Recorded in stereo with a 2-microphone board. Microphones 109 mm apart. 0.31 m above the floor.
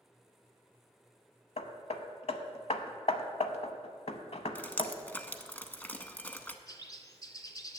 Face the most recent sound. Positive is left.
turn(degrees=35)  # may be behind; listen again after turning